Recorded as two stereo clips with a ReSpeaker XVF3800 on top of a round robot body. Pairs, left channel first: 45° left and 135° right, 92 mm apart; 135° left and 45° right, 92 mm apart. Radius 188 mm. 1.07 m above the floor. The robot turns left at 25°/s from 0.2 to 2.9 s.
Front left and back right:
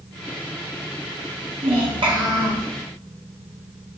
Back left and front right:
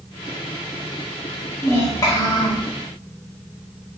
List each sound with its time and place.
1.6 s a child speaking: 160° right, 0.9 m; by 2.7 s 175° left, 0.9 m